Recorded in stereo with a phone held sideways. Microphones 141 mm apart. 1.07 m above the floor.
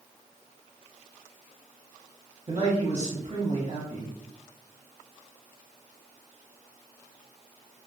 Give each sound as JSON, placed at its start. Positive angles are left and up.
{"t": 2.5, "sound": "a man speaking", "side_deg": -50, "distance_m": 1.1}